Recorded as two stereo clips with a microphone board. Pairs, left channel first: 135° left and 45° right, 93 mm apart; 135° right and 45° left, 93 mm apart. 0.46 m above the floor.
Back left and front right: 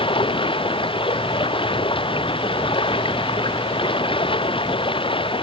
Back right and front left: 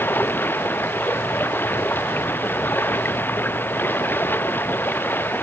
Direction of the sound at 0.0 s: 155° left.